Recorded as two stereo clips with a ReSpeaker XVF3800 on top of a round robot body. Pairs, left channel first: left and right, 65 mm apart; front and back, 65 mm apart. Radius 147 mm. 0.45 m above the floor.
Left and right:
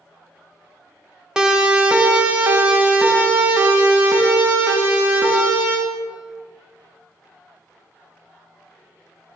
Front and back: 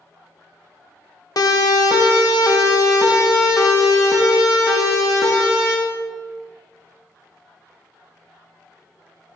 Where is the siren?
15° right, 2.5 m; by 5.8 s 35° right, 6 m.